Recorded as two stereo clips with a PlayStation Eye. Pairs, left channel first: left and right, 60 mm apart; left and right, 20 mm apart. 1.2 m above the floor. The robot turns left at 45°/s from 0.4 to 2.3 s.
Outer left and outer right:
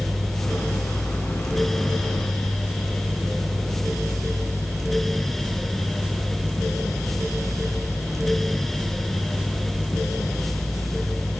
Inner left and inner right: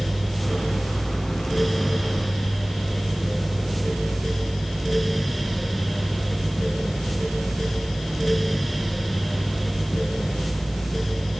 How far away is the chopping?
I don't hear chopping.